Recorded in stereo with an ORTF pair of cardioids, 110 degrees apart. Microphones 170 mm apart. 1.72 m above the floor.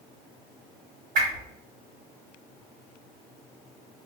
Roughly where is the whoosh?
Ahead right.